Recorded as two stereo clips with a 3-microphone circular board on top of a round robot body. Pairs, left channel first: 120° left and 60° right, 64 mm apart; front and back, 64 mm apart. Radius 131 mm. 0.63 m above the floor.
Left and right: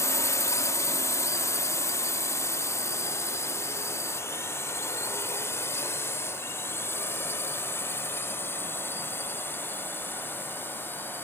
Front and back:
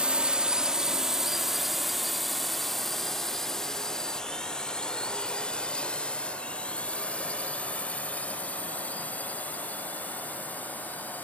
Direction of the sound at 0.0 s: 110° left.